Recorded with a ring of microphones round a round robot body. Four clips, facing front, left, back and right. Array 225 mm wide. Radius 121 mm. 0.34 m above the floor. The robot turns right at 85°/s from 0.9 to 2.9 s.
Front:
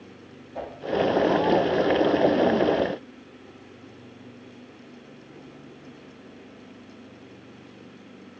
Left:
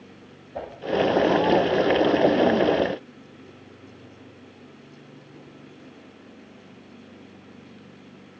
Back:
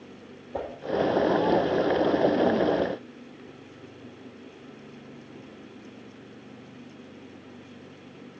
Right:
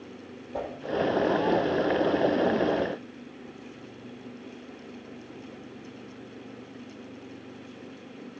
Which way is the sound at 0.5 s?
155° right.